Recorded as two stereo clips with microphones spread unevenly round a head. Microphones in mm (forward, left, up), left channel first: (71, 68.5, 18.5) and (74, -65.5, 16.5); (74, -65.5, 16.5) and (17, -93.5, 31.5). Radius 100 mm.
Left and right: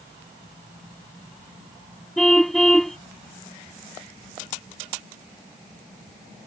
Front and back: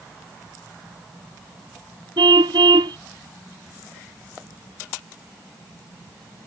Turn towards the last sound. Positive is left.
turn(degrees=180)